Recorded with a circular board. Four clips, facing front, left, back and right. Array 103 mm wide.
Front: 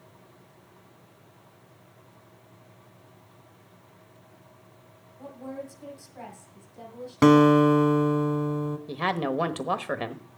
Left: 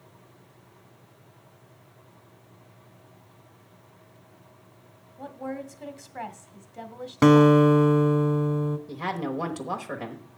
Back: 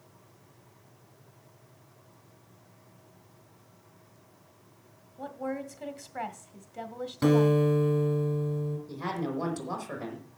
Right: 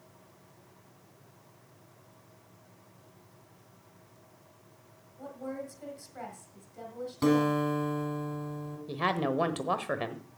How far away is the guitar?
About 1.0 m.